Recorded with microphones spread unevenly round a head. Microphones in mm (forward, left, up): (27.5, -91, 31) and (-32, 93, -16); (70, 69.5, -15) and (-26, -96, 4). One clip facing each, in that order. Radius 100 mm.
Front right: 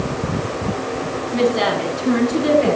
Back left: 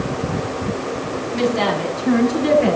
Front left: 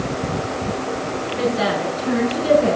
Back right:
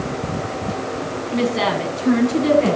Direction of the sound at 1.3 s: 140° right.